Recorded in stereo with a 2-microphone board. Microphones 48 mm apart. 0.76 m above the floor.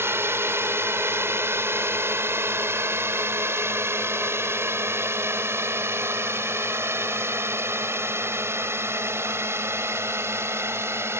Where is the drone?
55° right (ahead or behind); by 11.2 s 60° right (ahead or behind).